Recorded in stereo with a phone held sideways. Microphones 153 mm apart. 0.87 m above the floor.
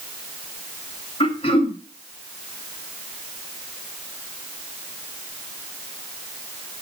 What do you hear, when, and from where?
1.2 s throat clearing: 40° left (ahead or behind), 2 m